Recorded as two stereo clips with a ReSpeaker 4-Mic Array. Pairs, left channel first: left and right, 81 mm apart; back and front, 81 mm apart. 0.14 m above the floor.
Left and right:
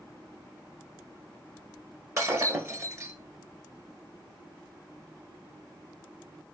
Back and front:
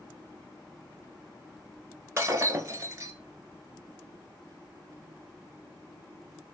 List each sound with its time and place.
2.2 s breaking glass: 45° right, 1.0 m